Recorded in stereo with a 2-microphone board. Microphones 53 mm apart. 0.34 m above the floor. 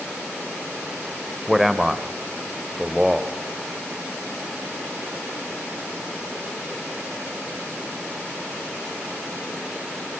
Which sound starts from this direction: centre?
A man speaking, at 1.5 s.